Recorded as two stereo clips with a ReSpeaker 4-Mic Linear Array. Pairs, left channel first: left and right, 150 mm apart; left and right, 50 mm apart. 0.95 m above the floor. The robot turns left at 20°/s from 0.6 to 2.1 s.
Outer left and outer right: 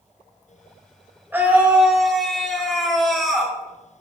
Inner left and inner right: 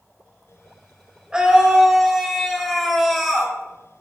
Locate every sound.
1.3 s a scream: 15° right (ahead or behind), 4 m; by 3.5 s centre (ahead or behind), 4 m